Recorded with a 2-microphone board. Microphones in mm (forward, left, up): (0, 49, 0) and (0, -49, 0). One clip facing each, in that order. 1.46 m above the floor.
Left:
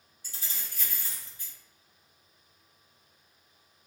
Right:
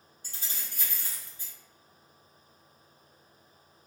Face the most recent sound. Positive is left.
turn(degrees=-30)  # may be behind; listen again after turning